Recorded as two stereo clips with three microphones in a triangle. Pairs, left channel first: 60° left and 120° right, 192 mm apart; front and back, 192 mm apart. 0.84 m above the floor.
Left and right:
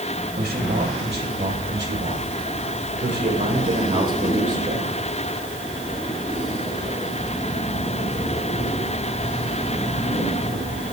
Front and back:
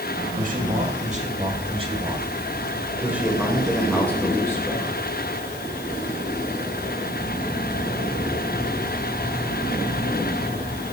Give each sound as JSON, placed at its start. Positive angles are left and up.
{"t": 0.4, "sound": "a man speaking", "azimuth_deg": -145, "distance_m": 3.5}